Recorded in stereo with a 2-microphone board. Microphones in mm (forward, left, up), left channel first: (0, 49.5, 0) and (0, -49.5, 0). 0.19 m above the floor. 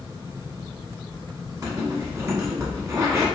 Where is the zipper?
35° right (ahead or behind), 1.1 m.